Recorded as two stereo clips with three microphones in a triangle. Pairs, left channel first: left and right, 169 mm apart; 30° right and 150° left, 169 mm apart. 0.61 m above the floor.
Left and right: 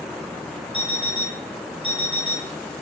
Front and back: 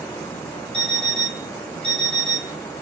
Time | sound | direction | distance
0.7 | an alarm clock | 150° left | 3 m